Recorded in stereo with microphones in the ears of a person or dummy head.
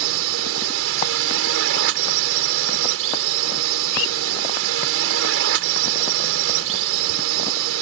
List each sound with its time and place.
0.0 s a drone: 80° right